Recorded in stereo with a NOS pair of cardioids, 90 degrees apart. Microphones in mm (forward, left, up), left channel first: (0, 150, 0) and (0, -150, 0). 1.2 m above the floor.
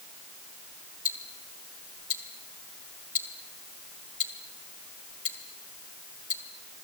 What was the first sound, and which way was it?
Ticking, 50° left.